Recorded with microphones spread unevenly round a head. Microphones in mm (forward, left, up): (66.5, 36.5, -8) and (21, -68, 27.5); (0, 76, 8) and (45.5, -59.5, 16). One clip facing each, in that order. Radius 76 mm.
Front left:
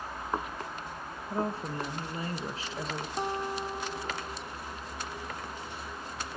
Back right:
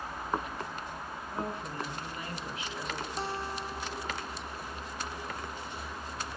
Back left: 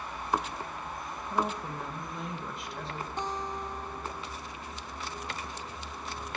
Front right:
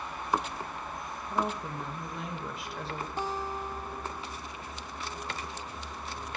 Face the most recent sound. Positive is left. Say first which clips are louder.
# front left 6 dB, front right 1 dB
turn(degrees=15)